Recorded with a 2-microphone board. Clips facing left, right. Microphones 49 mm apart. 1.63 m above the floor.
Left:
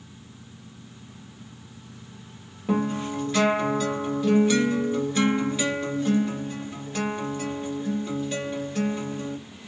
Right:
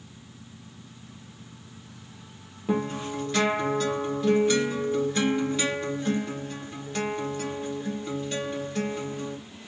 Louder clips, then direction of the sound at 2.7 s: Left 2 dB; 5° left (ahead or behind).